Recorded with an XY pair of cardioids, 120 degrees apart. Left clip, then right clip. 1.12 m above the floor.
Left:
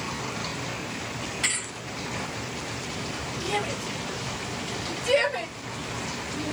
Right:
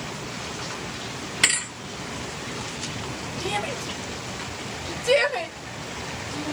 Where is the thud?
65° right, 1.8 m.